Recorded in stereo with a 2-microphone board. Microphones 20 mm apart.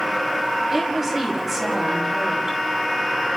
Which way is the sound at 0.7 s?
15° right (ahead or behind).